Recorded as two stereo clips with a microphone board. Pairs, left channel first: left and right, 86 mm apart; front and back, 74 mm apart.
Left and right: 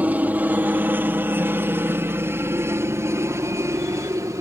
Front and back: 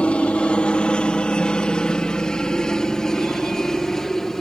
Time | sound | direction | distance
0.0 | a helicopter | 50° right | ?